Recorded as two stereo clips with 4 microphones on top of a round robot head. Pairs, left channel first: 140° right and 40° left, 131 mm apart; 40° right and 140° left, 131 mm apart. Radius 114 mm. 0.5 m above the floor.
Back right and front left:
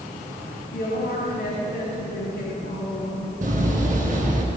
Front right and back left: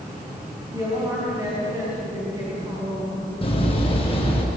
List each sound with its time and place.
0.7 s a woman speaking: 155° right, 5 m
3.4 s a door slam: 10° left, 5.5 m